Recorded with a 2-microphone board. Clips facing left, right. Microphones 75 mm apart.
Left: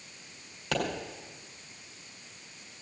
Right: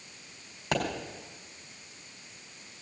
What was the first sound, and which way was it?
A pop, 15° right (ahead or behind).